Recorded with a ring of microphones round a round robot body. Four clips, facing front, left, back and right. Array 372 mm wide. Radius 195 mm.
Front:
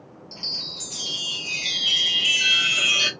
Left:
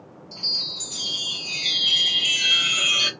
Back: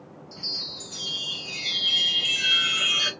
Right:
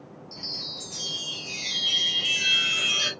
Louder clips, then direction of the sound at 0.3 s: Left 2 dB, front 2 dB; 35° left.